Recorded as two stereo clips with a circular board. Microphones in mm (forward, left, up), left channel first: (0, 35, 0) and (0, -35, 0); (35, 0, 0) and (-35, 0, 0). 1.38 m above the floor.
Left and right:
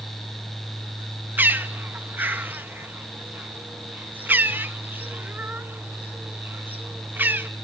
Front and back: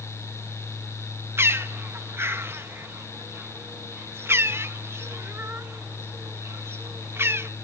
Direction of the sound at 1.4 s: 140° right.